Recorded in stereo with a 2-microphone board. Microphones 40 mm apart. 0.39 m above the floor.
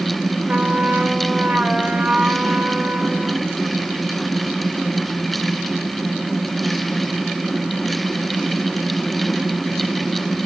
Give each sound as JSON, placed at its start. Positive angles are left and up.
{"t": 0.5, "sound": "a trumpet", "side_deg": -35, "distance_m": 1.7}